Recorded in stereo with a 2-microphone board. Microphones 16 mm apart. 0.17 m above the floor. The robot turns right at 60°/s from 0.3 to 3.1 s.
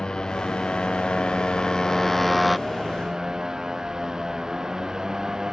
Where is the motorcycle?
55° left; by 5.5 s 140° right.